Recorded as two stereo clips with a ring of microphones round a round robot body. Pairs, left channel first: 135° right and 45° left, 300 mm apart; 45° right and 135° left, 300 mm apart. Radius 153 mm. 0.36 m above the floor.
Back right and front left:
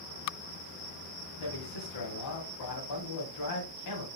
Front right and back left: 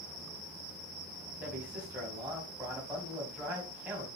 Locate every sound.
1.4 s a man speaking: 140° right, 3 m